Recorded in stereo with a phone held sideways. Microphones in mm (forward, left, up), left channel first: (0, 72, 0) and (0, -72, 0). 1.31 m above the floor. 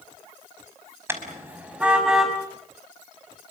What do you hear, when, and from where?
1.1 s a car horn: 15° right (ahead or behind), 5 m; by 2.3 s centre (ahead or behind), 5.5 m